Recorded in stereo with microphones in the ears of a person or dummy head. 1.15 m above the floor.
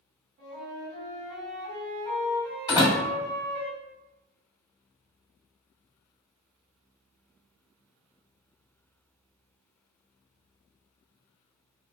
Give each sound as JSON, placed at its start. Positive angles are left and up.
{"t": 0.4, "sound": "a flute", "side_deg": -50, "distance_m": 1.7}
{"t": 2.7, "sound": "a door slam", "side_deg": 20, "distance_m": 1.6}